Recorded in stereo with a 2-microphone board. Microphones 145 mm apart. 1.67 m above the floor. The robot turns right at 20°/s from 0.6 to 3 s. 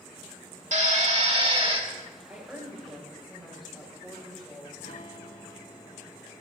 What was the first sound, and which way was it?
A drill, 55° right (ahead or behind).